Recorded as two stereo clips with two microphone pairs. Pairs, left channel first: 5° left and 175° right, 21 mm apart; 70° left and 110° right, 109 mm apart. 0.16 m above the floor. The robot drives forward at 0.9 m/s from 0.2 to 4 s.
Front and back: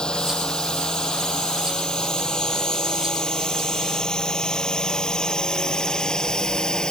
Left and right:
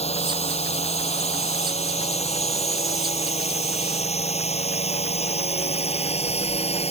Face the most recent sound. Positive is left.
turn(degrees=60)